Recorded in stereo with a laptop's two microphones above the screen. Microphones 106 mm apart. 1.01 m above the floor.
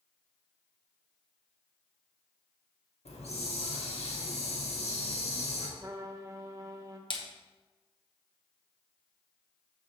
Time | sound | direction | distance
3.0 | a hiss | 80° left | 1.4 m
5.8 | a trumpet | 30° right (ahead or behind) | 0.7 m
7.1 | a splash | 50° left (ahead or behind) | 1.1 m